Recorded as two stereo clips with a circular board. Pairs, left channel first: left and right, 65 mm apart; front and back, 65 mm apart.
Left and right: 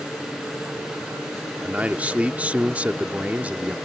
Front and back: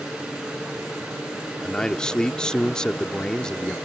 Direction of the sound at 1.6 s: 60° right.